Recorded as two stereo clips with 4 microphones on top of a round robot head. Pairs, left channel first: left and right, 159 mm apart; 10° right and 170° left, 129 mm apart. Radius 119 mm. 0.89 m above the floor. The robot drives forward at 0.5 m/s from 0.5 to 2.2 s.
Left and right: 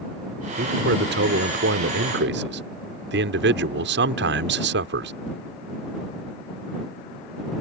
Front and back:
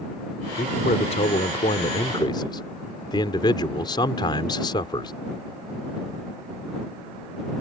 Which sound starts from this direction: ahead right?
A man speaking, at 0.6 s.